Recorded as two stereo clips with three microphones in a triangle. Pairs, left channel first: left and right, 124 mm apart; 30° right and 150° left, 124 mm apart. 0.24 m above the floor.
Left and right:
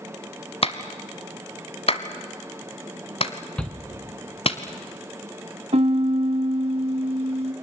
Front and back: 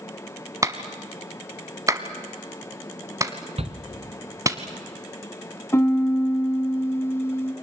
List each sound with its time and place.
0.6 s a clap: 95° left, 1.2 m
3.6 s a shout: 170° left, 2.0 m
5.7 s a piano: 100° right, 1.1 m